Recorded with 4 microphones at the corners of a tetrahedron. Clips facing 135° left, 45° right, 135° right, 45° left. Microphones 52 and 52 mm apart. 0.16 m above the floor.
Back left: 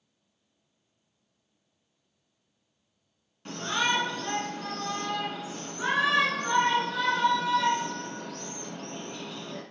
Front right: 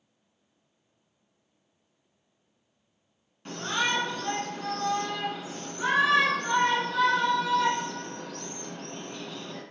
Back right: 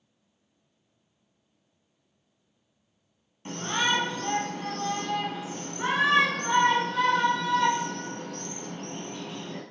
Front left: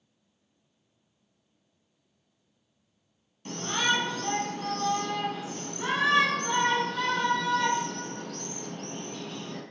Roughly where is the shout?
Behind right.